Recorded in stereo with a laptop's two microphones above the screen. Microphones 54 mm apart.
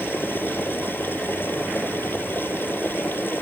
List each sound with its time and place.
0.0 s a machine running: 40° left (ahead or behind)